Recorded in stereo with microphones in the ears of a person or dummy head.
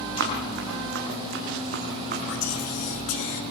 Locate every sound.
0.2 s running footsteps: 60° right (ahead or behind), 3.5 m; by 2.2 s 45° right (ahead or behind), 4.5 m
2.3 s whispering: 65° left (ahead or behind), 2 m